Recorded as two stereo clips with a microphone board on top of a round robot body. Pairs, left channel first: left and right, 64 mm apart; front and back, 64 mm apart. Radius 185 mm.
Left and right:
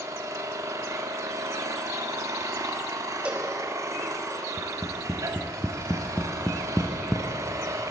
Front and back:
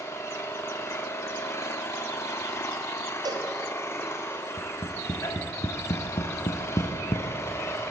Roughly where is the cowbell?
Behind.